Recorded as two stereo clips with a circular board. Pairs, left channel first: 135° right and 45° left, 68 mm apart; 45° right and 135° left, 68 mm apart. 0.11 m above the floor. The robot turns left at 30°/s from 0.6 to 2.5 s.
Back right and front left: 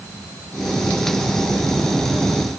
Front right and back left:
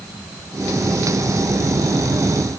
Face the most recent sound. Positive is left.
No sound to turn to.